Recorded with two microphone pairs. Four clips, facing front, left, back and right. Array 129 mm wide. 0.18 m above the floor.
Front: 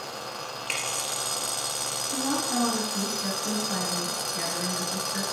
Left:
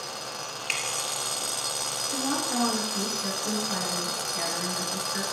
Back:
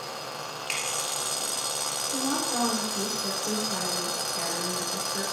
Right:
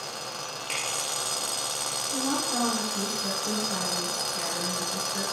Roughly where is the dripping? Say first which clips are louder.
Left 1 dB, front 2 dB; left.